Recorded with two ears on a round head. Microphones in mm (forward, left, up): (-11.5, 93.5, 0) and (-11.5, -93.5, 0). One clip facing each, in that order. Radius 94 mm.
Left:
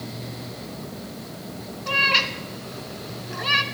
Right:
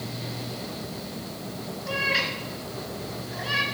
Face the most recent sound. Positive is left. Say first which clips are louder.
# left 2 dB
turn(degrees=65)  # may be behind; listen again after turning